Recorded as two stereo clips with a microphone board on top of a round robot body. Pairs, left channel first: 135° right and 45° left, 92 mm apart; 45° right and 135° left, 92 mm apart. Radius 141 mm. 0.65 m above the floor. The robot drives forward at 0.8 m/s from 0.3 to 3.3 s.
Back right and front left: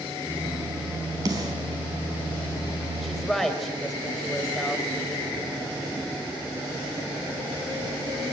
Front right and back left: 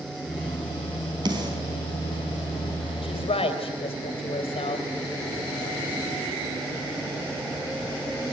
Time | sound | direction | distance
1.2 | a snare drum | 95° left | 5.5 m
3.0 | a woman speaking | 45° right | 2.5 m